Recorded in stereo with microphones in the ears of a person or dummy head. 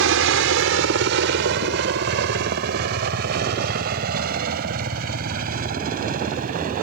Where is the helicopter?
65° right (ahead or behind); by 6.8 s 45° right (ahead or behind).